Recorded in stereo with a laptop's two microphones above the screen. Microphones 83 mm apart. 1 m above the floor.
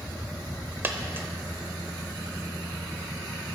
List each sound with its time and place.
0.8 s a dropped coin: 25° right (ahead or behind), 0.8 m